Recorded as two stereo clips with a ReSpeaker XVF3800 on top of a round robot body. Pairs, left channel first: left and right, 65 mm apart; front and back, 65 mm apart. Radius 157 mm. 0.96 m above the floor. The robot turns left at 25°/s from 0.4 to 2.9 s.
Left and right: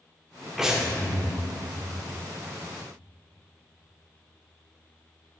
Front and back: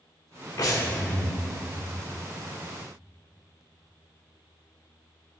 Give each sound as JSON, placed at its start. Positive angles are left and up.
{"t": 0.6, "sound": "breathing", "azimuth_deg": -5, "distance_m": 2.0}